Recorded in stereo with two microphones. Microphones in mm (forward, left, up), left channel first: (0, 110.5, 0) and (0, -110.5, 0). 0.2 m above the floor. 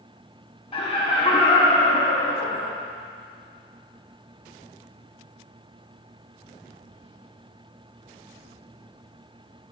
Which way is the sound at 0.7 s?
25° left (ahead or behind).